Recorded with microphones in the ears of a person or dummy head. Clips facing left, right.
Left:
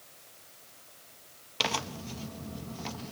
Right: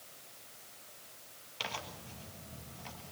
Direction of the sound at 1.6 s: 65° left (ahead or behind).